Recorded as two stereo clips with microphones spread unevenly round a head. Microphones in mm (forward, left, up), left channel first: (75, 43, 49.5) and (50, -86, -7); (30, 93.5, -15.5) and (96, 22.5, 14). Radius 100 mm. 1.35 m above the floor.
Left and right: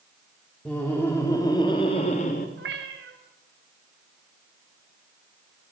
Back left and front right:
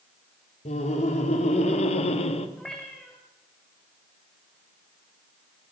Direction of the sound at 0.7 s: 165° left.